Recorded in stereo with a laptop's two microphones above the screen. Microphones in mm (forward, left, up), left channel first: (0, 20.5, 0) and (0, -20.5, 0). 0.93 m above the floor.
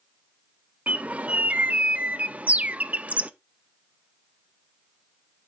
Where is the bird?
35° right (ahead or behind), 0.6 m.